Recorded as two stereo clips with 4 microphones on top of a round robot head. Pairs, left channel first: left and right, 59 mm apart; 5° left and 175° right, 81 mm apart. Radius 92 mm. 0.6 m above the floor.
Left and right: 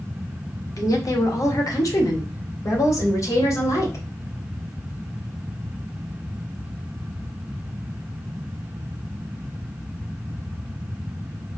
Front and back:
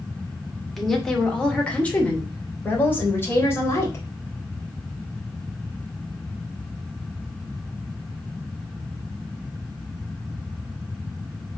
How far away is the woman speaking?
About 2.5 m.